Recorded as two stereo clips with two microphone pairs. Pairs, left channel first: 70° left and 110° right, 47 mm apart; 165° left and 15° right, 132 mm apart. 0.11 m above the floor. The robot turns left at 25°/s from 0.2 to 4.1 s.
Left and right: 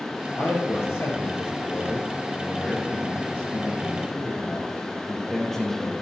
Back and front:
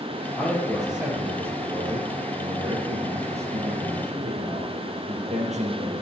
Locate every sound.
0.4 s a man speaking: 85° left, 3.5 m; by 6.0 s 10° right, 3.5 m